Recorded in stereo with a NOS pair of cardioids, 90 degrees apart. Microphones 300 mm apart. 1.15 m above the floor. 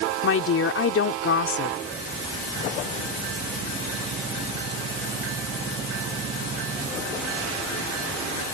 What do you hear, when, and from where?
0.2 s a woman speaking: 45° left